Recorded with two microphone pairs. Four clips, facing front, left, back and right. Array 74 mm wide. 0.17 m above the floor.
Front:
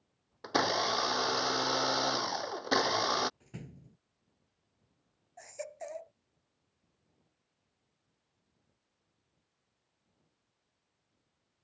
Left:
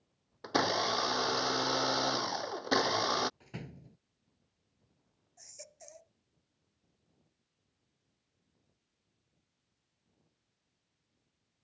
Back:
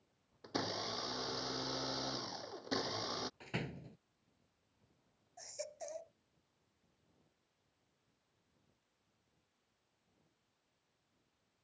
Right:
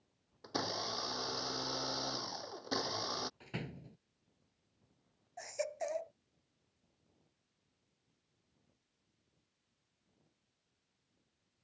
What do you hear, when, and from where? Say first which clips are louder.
0.4 s a blender: left 9 dB, front 11 dB; 30° left
3.4 s a door slam: right 2 dB, back 6 dB; 170° right
5.4 s a baby crying: right 17 dB, front 5 dB; 70° right